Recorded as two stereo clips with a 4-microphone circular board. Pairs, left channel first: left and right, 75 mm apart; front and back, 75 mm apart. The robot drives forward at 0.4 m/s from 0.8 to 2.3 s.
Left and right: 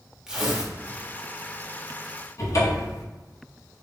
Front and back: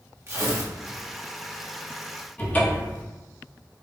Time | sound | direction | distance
0.3 | tearing paper | 165° right | 0.9 m
2.4 | a cupboard door | 65° left | 0.9 m